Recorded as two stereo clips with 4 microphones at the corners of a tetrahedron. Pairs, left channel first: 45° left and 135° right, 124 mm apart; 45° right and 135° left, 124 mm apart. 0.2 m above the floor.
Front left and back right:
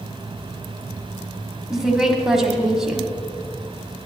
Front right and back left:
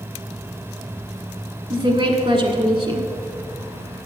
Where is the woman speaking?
140° left, 1.6 m.